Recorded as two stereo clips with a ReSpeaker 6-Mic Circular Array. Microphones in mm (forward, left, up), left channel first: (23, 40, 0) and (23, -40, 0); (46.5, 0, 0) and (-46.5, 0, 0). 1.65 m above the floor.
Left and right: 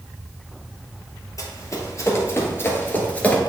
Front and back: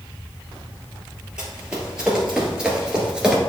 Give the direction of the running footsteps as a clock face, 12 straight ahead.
9 o'clock.